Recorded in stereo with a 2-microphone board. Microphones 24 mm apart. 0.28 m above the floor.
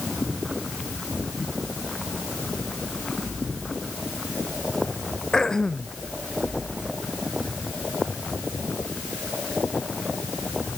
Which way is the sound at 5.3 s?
30° left (ahead or behind).